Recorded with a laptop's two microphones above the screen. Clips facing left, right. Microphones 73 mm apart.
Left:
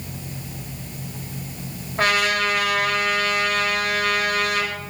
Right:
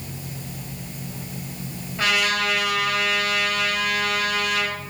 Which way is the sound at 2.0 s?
60° left (ahead or behind).